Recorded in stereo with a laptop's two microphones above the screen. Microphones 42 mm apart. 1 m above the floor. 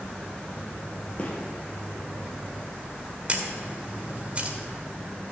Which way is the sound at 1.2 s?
25° left (ahead or behind).